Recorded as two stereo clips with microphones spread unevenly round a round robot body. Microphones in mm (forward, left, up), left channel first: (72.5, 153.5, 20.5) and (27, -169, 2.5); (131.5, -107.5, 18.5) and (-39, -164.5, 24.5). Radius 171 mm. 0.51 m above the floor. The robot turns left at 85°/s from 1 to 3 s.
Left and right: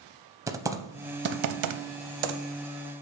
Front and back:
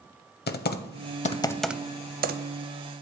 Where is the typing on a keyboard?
15° right, 0.6 m; by 2.4 s 135° right, 0.6 m.